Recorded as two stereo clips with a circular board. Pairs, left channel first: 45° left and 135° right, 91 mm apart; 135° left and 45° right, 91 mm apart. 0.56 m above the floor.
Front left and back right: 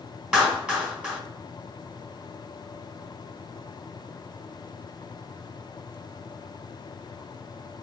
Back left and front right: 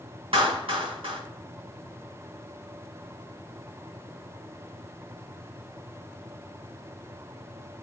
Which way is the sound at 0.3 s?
60° right.